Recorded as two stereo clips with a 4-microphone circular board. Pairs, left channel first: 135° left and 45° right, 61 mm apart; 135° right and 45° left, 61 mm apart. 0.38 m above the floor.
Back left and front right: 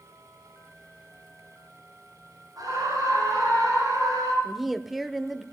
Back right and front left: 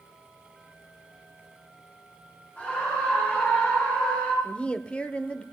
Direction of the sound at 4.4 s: 125° right.